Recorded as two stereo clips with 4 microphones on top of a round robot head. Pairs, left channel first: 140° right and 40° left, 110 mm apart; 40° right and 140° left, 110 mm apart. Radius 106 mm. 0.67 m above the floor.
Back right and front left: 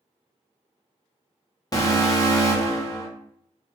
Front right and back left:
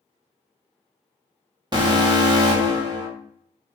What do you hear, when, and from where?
1.7 s an alarm: 175° left, 1.4 m